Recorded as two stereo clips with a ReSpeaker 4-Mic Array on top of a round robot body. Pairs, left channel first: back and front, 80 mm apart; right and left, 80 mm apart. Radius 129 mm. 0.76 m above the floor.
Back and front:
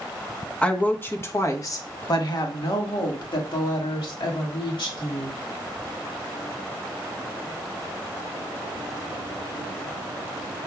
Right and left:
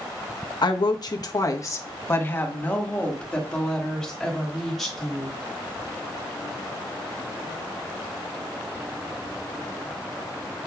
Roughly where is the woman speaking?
Right.